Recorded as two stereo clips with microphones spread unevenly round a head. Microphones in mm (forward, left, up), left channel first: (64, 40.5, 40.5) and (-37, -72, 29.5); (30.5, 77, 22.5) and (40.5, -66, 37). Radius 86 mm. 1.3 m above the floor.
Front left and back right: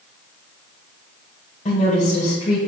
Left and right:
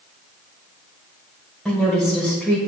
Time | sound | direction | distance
1.6 | a woman speaking | 5° left | 1.7 m